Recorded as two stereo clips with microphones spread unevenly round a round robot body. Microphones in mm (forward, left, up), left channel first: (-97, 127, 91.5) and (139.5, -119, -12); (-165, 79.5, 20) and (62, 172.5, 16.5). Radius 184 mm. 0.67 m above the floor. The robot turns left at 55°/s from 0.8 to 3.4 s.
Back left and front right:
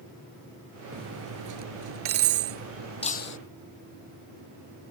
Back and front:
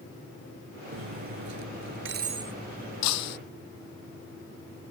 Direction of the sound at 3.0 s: 150° right.